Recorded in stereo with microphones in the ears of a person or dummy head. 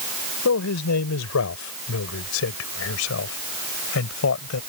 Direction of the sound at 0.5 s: 70° left (ahead or behind).